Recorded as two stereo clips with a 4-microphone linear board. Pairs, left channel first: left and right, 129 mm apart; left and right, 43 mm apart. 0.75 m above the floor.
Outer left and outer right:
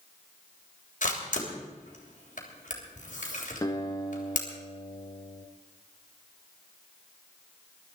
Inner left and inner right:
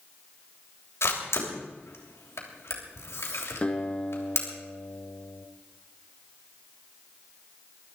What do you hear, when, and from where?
1.0 s a camera shutter: 80° left, 3 m
3.6 s a guitar: 30° left (ahead or behind), 1.7 m